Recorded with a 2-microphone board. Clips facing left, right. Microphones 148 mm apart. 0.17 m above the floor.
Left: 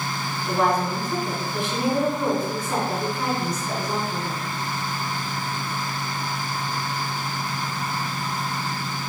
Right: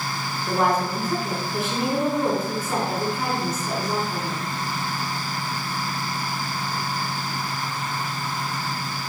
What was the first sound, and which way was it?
A woman speaking, 5° right (ahead or behind).